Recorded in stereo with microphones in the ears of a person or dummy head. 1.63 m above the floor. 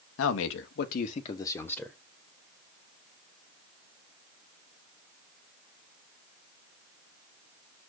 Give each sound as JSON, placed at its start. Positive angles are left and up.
{"t": 0.2, "sound": "a man speaking", "side_deg": 85, "distance_m": 1.3}